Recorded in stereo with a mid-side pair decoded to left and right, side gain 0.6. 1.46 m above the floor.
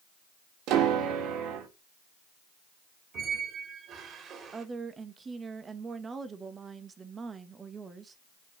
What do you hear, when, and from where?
0.7 s a piano: 70° right, 3.5 m
3.1 s a squeak: 50° right, 3.5 m
4.5 s a woman speaking: 30° right, 1.8 m